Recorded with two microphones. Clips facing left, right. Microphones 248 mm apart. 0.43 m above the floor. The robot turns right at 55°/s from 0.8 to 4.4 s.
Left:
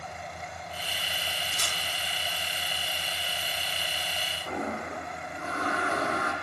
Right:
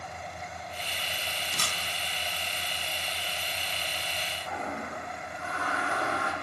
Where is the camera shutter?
70° right (ahead or behind), 4.5 m; by 1.8 s 60° right (ahead or behind), 4.5 m.